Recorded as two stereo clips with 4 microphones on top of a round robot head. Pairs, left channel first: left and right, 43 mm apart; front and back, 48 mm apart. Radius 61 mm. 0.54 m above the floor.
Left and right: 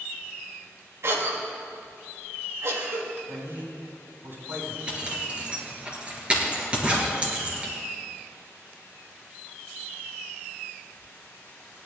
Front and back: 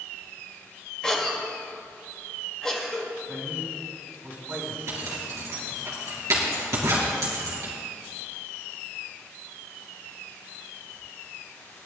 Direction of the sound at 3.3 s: 125° right.